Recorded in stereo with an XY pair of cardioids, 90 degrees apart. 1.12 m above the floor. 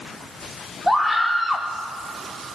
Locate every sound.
0.9 s a scream: 5° right, 3.5 m